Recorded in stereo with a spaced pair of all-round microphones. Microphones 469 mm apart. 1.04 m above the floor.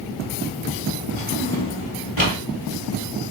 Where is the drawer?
30° left (ahead or behind), 1.6 m.